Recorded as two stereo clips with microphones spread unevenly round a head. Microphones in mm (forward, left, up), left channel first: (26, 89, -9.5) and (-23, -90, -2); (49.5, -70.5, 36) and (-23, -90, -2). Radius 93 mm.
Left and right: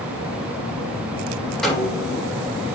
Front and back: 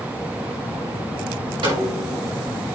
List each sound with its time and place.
1.6 s a snare drum: 165° left, 5.5 m